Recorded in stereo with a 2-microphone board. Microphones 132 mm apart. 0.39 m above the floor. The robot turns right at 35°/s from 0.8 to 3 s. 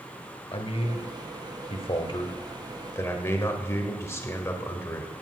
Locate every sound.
0.5 s a man speaking: 75° left, 1.5 m; by 5.1 s 155° left, 1.5 m